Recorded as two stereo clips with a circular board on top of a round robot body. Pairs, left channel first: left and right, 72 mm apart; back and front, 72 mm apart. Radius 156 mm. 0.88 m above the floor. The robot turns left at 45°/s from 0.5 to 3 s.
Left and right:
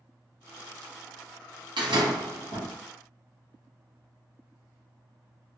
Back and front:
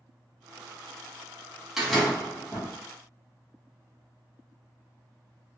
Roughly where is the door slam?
Right.